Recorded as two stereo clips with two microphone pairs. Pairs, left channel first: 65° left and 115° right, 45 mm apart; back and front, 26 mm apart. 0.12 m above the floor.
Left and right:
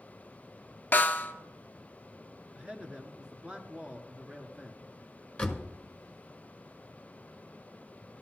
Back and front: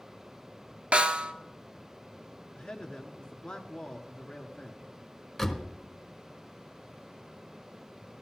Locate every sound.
0.9 s a snare drum: 20° left, 0.7 m
2.5 s a man speaking: 170° right, 1.4 m
5.4 s a door slam: 110° left, 1.1 m